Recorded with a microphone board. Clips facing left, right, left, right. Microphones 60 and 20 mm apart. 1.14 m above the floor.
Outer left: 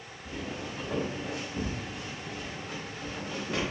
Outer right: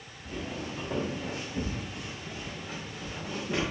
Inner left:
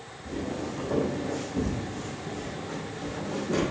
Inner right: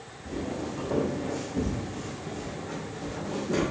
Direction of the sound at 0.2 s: 5° left (ahead or behind).